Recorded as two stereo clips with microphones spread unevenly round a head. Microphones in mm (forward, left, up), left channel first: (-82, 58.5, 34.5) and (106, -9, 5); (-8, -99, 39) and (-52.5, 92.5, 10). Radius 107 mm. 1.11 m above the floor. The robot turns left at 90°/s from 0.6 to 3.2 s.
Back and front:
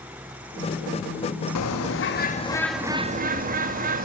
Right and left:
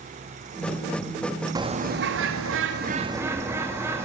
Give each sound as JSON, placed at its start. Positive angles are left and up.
{"t": 1.6, "sound": "a bird", "azimuth_deg": 175, "distance_m": 2.0}